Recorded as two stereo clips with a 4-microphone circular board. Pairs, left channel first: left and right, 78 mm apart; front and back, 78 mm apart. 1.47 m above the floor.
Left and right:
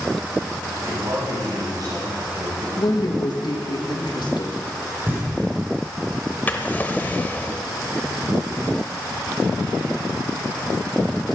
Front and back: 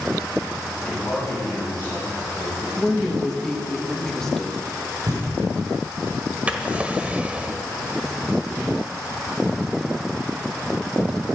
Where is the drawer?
130° left, 1.3 m.